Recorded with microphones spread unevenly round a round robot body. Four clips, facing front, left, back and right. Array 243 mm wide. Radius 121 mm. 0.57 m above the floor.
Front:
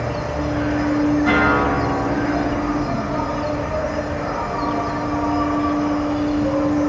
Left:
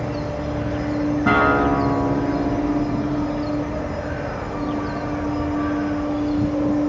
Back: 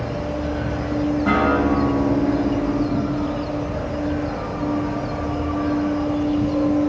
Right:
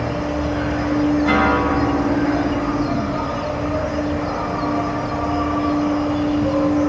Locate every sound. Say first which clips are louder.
0.0 s an insect: right 4 dB, front 2 dB; 25° right, 3 m
1.3 s a guitar: even, front 1 dB; 95° left, 5.5 m